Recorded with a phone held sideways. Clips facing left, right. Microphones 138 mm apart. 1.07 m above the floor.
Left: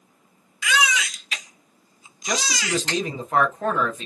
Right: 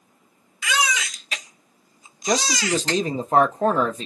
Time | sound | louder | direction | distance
0.6 | a baby crying | left 1 dB | 40° right (ahead or behind) | 0.9 m
2.2 | a man speaking | right 5 dB | 35° right (ahead or behind) | 0.6 m